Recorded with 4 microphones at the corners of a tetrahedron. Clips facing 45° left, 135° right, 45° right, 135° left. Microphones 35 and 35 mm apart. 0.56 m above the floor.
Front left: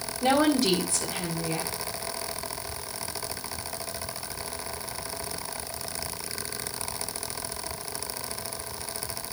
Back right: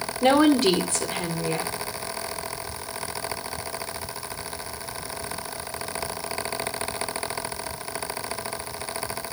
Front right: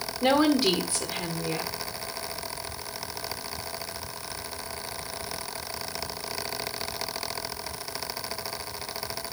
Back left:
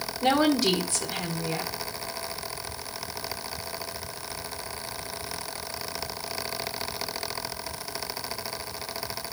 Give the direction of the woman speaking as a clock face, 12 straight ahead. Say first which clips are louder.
Back right 5 dB, front right 1 dB; 4 o'clock.